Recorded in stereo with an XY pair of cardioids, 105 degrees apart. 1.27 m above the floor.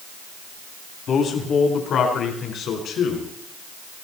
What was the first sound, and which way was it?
A man speaking, 60° left.